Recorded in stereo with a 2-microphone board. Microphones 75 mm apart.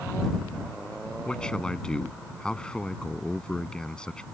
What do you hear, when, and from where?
1.2 s a man speaking: 10° left (ahead or behind)